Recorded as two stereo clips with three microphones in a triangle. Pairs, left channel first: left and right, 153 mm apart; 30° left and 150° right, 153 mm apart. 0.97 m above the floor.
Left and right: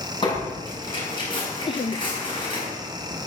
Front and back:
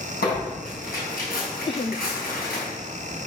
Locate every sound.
0.2 s tearing paper: 30° left, 7.5 m
1.7 s laughter: 60° left, 0.5 m